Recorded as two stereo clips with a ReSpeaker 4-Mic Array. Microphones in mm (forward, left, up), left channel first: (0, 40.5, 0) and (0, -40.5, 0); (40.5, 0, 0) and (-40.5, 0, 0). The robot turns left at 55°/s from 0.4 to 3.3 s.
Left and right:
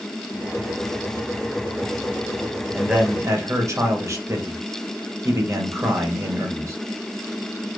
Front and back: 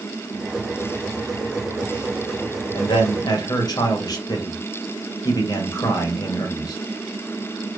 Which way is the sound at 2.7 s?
5° right.